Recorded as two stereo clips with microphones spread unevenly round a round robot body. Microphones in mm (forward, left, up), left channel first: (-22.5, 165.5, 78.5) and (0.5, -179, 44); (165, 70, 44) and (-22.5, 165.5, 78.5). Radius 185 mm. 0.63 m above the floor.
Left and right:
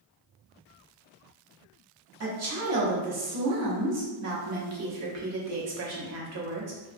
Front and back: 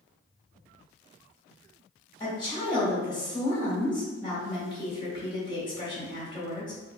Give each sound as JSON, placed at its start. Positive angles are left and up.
{"t": 2.2, "sound": "a woman speaking", "azimuth_deg": -80, "distance_m": 0.9}